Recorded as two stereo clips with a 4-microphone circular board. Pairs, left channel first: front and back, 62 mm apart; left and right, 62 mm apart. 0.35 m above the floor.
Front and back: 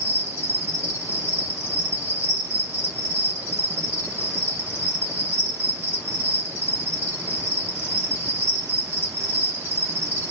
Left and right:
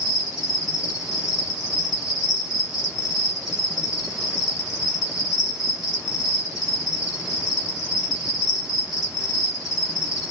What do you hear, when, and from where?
0.0 s an insect: 165° right, 2.0 m